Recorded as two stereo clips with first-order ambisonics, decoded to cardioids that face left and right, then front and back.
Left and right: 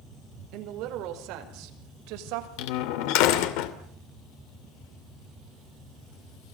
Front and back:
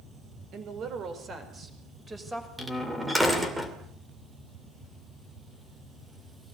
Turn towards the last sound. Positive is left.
turn(degrees=90)